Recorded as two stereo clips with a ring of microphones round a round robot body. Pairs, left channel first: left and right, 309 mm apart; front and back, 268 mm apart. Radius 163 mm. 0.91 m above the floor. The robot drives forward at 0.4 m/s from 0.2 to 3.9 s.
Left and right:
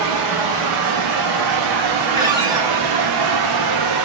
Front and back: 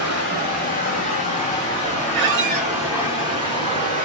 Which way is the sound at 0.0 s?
60° right.